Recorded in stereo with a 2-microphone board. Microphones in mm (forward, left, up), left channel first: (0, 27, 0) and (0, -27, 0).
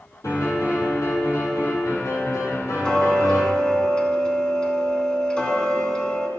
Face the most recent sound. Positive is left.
turn(degrees=15)  # may be behind; listen again after turning